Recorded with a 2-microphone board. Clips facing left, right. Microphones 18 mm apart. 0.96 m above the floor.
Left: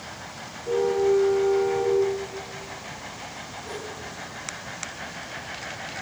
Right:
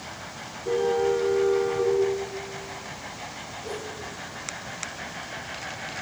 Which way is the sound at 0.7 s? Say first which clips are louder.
Left 2 dB; 85° right.